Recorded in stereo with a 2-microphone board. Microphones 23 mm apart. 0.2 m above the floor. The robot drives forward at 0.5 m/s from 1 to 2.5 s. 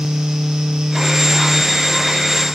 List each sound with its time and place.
Only background noise.